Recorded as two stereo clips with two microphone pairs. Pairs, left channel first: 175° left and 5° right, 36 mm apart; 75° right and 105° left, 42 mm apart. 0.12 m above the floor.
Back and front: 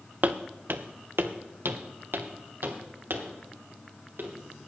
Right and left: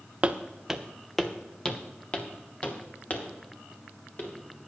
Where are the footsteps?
40° left, 0.9 m; by 4.3 s 25° right, 3.5 m.